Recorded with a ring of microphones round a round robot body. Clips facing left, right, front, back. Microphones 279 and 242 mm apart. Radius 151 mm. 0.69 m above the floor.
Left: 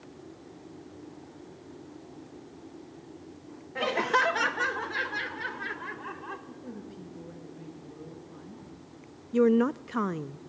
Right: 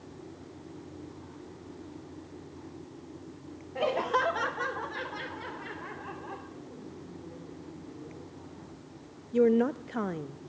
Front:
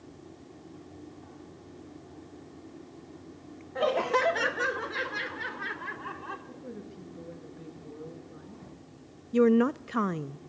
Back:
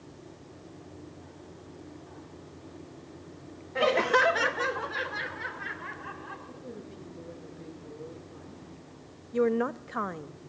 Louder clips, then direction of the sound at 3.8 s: Even, back 2 dB; 140° left.